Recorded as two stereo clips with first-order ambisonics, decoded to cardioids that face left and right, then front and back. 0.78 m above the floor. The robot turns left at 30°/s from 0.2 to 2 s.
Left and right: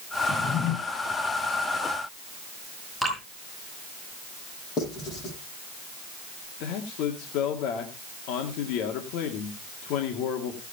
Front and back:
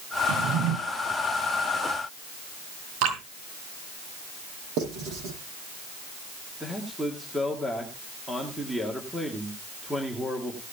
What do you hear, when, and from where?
0.3 s a drawer: 165° left, 1.5 m; by 0.8 s 150° left, 1.5 m
3.0 s dripping: straight behind, 5 m
4.8 s writing: 145° left, 8.5 m
6.6 s a man speaking: 95° left, 2.0 m